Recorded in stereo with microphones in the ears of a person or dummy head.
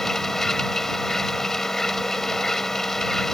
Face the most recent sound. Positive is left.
turn(degrees=5)  # may be behind; listen again after turning